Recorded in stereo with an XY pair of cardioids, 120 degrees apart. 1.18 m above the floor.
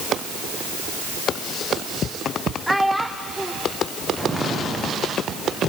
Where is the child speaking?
Straight ahead, 0.6 m.